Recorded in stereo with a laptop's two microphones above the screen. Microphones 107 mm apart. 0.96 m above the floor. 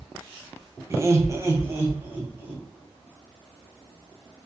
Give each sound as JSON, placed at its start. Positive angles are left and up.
{"t": 0.9, "sound": "laughter", "side_deg": -25, "distance_m": 0.5}